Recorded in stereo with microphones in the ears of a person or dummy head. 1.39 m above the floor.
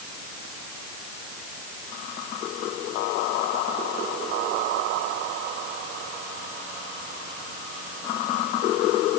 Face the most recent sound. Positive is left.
No sound to turn to.